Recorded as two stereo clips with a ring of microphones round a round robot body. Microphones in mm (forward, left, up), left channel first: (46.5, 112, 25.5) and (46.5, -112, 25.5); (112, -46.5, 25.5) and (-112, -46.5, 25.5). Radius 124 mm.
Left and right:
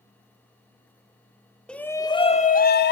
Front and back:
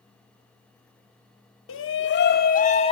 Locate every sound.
1.7 s a shout: 5° left, 1.7 m; by 2.9 s 65° left, 1.6 m